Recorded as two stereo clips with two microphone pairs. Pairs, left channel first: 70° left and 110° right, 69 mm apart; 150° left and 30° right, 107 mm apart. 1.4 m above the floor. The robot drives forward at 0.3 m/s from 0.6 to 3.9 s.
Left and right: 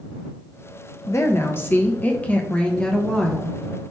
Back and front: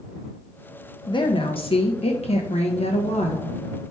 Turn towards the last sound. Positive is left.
turn(degrees=150)